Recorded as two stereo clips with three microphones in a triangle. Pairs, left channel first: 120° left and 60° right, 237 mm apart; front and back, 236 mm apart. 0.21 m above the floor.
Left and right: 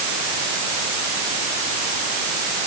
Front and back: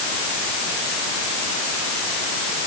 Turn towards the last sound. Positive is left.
No sound to turn to.